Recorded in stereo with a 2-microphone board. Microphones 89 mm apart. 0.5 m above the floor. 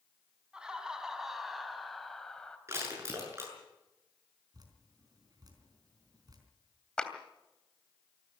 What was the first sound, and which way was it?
Laughter, 10° right (ahead or behind).